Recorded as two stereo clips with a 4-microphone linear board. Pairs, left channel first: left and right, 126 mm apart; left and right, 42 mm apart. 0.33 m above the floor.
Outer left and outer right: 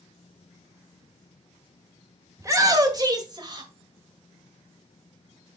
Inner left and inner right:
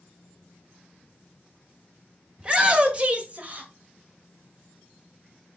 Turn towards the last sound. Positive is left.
turn(degrees=-35)  # may be behind; listen again after turning